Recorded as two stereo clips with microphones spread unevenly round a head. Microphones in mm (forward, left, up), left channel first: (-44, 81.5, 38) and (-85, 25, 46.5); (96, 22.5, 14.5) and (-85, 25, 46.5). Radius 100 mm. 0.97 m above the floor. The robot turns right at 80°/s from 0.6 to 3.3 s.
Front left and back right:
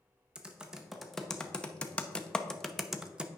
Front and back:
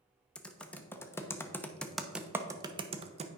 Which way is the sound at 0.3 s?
50° right.